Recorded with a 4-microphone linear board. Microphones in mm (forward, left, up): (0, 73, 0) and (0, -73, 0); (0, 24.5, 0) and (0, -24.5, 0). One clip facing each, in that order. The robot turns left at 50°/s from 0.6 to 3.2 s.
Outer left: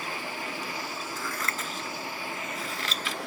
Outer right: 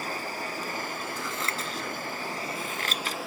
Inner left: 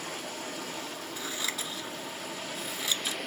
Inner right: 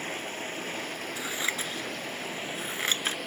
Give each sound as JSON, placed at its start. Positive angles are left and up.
{"t": 0.0, "sound": "running water", "azimuth_deg": -45, "distance_m": 2.0}
{"t": 1.2, "sound": "scissors", "side_deg": -15, "distance_m": 1.1}